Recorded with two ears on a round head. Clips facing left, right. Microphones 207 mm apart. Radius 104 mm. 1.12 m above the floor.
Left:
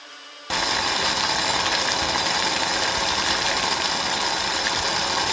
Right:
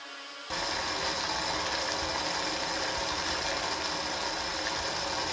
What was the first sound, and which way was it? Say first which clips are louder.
Boiling: left 8 dB; 75° left (ahead or behind).